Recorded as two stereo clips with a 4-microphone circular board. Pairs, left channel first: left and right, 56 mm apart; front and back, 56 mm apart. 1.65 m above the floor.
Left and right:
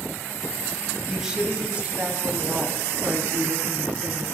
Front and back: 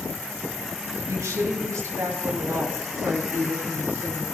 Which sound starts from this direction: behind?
A woman speaking, at 1.1 s.